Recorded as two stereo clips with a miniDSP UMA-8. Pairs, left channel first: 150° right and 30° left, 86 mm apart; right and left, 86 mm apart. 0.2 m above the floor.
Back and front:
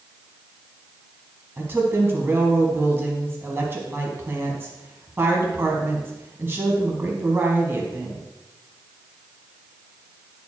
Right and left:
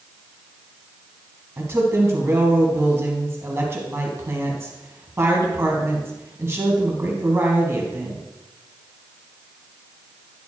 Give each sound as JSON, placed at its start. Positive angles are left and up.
{"t": 1.6, "sound": "a woman speaking", "azimuth_deg": 65, "distance_m": 1.8}